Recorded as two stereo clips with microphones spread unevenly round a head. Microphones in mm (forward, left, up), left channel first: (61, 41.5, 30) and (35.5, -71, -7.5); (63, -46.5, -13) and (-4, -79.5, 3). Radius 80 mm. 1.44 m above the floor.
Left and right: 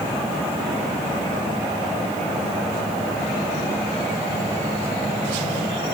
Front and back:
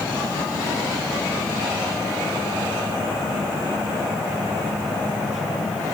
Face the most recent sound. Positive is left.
No sound to turn to.